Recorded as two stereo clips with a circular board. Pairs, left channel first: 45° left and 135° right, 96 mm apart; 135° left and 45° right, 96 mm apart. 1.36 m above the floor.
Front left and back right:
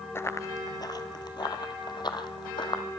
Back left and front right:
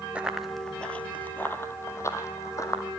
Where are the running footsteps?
15° left, 1.4 m; by 2.8 s 80° left, 4 m.